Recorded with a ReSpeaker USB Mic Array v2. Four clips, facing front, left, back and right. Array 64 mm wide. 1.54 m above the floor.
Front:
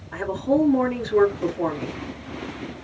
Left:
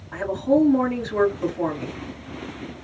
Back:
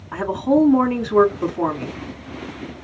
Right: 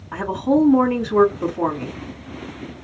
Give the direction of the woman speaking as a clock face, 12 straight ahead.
4 o'clock.